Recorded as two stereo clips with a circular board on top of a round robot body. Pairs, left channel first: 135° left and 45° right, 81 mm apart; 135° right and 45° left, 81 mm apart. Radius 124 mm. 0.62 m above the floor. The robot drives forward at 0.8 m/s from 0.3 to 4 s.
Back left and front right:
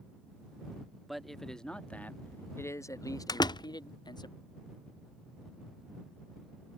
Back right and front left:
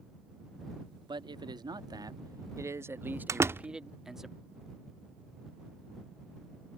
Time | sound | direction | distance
1.1 | a man speaking | 45° left | ?
3.3 | a door slam | 95° left | ?